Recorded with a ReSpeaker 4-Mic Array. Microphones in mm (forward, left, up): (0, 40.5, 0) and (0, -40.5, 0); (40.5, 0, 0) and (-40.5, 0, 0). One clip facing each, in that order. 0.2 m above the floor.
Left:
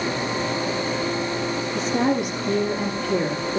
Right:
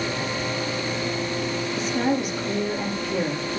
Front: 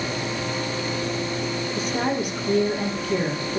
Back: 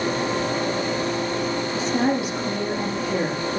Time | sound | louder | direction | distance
1.8 | a woman speaking | left 2 dB, back 3 dB | 110° left | 8.5 m